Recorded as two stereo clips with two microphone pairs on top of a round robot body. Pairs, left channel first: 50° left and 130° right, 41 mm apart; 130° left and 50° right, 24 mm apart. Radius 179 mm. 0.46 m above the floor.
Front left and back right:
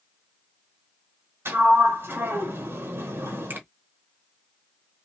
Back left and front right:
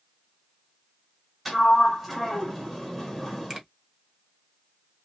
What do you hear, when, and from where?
1.4 s a sliding door: 135° right, 1.8 m
3.5 s a finger snap: 115° right, 2.0 m